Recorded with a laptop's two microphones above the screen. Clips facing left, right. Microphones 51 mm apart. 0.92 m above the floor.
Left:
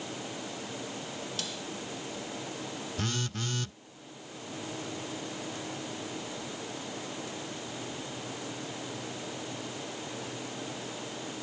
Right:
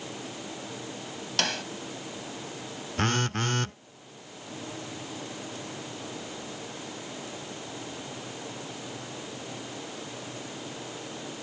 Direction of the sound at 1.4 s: 75° right (ahead or behind).